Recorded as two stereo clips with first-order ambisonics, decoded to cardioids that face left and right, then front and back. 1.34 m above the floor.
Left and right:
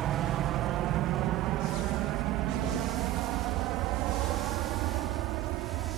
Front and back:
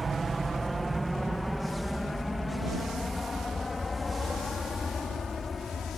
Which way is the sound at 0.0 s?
105° right.